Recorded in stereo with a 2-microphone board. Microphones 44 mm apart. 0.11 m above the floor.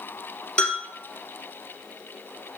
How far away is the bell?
About 2.5 m.